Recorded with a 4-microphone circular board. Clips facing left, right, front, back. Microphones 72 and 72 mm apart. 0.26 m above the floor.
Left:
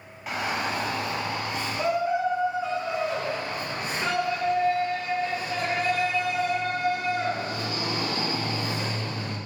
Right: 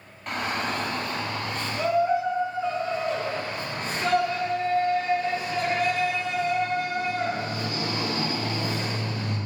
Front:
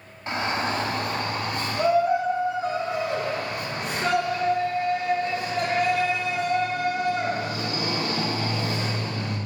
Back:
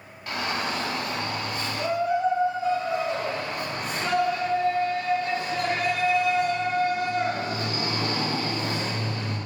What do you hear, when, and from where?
0.3 s a shout: 15° left, 1.0 m